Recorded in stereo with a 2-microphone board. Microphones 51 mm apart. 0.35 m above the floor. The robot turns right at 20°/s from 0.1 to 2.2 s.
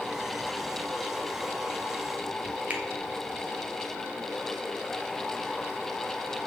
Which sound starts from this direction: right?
A finger snap, at 2.7 s.